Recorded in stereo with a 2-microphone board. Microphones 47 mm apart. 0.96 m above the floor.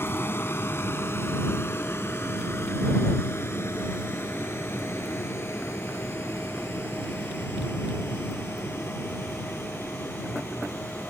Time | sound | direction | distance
0.0 | a vehicle | 60° left (ahead or behind) | ?